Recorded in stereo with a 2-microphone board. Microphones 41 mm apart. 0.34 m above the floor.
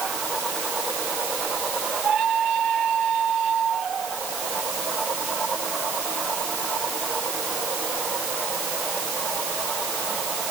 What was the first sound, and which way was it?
Only background noise.